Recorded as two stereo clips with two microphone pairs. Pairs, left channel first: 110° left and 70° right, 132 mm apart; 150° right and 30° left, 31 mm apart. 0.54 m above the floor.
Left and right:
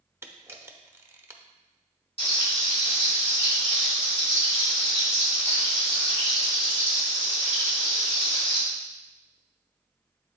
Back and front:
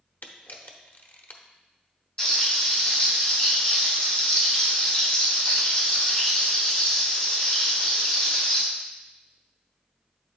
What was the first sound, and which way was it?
A camera shutter, 140° right.